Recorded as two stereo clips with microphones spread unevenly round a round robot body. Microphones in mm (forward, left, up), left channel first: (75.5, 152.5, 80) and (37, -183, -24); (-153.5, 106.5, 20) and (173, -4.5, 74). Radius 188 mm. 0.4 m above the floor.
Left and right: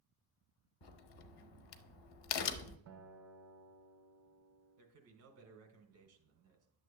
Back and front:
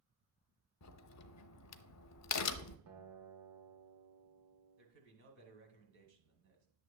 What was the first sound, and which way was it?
A crack, 120° left.